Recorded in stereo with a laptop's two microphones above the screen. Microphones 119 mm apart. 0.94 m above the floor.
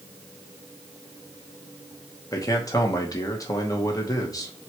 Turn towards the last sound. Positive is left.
turn(degrees=30)  # may be behind; listen again after turning